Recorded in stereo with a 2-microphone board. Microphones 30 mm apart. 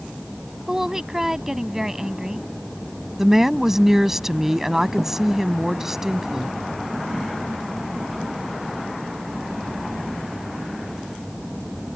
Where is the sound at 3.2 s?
15° right (ahead or behind).